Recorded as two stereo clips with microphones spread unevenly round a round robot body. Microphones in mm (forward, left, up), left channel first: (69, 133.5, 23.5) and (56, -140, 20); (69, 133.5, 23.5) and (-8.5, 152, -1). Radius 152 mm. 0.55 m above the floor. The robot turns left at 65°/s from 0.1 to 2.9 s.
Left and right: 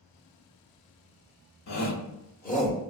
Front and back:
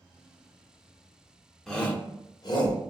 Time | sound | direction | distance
1.7 | a shout | 85° left | 1.2 m